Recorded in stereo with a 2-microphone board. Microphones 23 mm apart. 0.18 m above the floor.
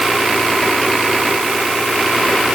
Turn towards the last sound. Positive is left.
No sound to turn to.